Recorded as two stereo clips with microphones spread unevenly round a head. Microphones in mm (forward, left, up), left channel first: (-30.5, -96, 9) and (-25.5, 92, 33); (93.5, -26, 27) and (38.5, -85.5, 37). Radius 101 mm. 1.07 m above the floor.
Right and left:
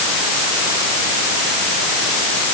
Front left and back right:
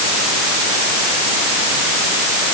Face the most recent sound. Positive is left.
No sound to turn to.